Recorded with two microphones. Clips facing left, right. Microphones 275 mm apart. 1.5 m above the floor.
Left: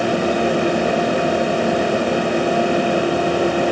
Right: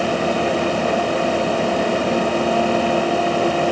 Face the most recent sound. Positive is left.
No sound to turn to.